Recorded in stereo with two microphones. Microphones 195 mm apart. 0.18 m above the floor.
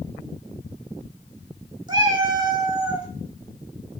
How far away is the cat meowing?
About 0.8 m.